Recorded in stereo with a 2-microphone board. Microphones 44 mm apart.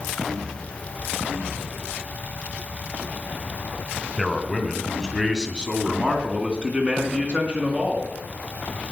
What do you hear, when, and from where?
4.2 s a man speaking: centre (ahead or behind), 2.5 m; by 8.2 s 35° right (ahead or behind), 4.5 m